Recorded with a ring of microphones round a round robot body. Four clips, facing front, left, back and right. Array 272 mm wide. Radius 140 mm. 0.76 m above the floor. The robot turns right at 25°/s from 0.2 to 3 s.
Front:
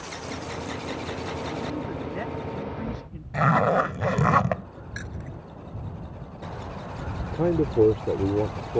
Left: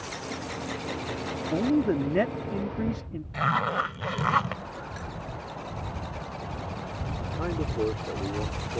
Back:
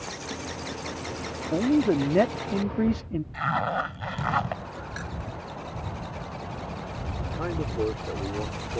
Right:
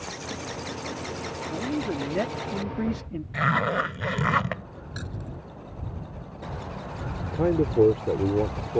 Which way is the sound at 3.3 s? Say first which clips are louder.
Right 1 dB, front 7 dB; 15° right.